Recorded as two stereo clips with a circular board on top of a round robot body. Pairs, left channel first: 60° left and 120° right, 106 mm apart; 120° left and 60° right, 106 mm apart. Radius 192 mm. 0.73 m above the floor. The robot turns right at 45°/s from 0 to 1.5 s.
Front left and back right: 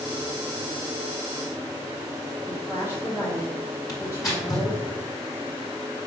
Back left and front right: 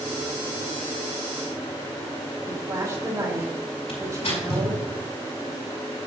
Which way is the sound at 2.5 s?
Straight ahead.